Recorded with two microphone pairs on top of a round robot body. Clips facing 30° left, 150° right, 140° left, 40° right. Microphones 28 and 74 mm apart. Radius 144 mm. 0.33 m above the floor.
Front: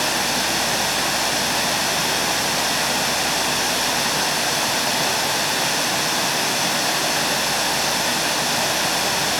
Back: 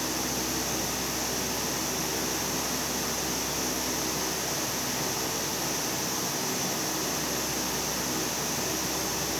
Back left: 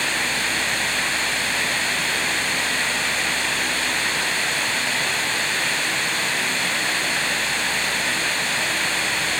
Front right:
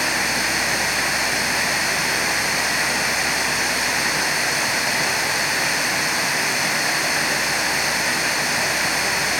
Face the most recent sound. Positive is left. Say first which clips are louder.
# front 10 dB, front right 2 dB
turn(degrees=40)